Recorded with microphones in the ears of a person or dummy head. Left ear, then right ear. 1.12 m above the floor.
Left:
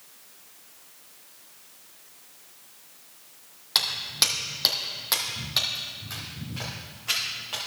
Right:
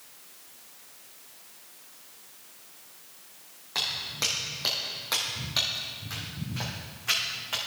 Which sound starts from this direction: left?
Footsteps, at 3.8 s.